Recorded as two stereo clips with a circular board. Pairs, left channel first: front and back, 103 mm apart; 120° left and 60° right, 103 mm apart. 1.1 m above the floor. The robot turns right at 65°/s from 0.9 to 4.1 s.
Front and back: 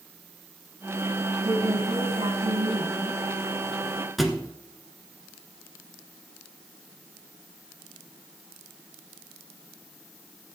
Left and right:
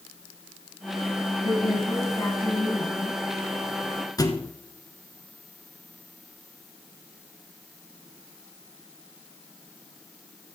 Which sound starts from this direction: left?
A thud, at 4.2 s.